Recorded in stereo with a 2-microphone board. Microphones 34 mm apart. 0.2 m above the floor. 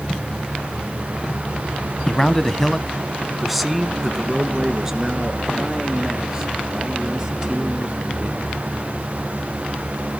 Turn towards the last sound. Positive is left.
turn(degrees=-20)  # may be behind; listen again after turning